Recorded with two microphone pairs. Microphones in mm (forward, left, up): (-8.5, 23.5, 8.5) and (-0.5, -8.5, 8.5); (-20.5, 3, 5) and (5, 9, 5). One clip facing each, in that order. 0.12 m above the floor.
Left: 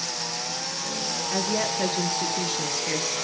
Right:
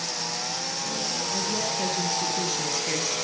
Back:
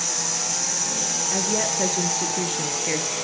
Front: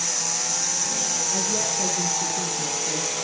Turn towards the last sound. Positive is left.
turn(degrees=-160)